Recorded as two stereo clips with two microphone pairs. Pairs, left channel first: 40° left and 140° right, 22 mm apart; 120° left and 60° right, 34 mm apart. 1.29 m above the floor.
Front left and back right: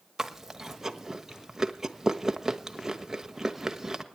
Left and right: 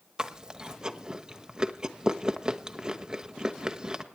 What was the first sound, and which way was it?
Chewing, 85° right.